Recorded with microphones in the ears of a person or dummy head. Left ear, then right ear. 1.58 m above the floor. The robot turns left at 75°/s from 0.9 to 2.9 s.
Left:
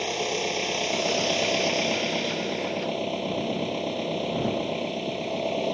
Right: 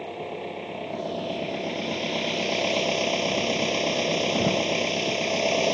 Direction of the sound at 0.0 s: 95° left.